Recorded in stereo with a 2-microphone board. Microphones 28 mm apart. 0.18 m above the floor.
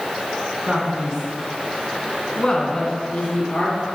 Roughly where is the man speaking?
Right.